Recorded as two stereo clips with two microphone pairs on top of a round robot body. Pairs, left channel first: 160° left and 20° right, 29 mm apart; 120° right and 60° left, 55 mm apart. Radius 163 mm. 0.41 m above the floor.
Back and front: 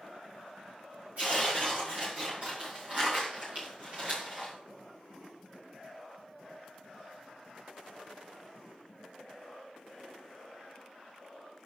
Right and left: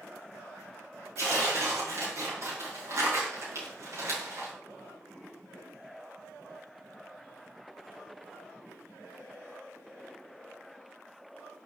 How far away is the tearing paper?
About 5.5 m.